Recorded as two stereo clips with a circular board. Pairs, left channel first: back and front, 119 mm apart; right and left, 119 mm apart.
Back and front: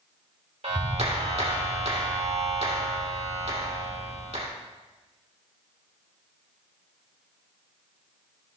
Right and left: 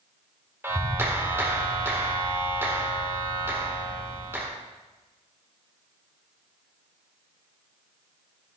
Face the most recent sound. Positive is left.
turn(degrees=20)